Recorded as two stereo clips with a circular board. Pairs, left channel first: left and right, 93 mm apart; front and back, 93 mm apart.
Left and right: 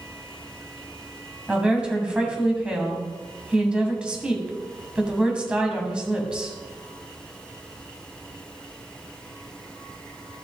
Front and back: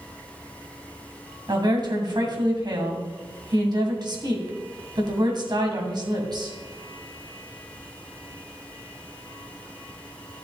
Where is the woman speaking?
165° right, 2 m.